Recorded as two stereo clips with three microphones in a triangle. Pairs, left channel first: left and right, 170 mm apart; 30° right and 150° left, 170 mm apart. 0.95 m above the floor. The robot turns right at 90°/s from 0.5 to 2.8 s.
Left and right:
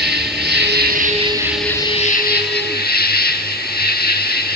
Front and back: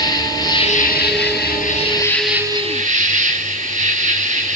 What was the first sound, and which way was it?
An insect, 95° right.